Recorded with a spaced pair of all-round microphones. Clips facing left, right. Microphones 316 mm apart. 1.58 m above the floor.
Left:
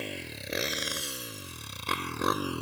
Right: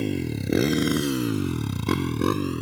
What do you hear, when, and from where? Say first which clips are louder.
0.0 s a motorcycle: right 14 dB; 55° right (ahead or behind); by 2.6 s 20° right (ahead or behind)